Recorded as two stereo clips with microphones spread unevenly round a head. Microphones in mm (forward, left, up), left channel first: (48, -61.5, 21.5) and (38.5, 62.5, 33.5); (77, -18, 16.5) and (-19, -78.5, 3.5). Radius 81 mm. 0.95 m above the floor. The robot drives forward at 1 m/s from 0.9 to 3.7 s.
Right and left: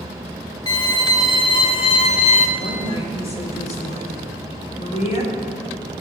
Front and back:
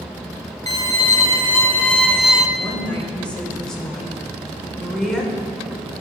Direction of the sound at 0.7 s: 25° right.